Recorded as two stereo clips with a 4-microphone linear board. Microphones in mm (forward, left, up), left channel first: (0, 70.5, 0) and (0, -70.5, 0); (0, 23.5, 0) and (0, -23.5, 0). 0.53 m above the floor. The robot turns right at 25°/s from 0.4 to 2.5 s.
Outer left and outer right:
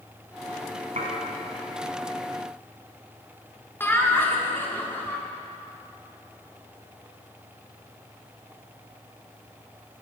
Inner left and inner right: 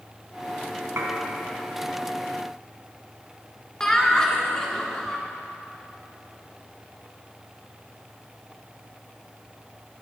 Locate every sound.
1.0 s dishes clattering: 60° right (ahead or behind), 3 m; by 1.1 s 65° right (ahead or behind), 3 m
3.8 s laughter: 15° left (ahead or behind), 1.3 m